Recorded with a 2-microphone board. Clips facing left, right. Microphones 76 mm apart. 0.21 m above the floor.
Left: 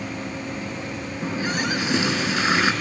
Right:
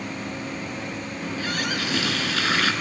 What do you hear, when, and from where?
1.2 s a running tap: 20° left (ahead or behind), 1.6 m